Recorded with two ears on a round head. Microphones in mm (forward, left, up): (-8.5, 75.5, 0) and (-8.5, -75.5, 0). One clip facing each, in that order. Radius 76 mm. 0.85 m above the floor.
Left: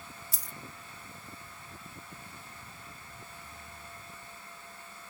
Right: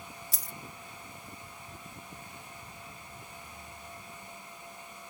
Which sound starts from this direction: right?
A dropped coin, at 0.3 s.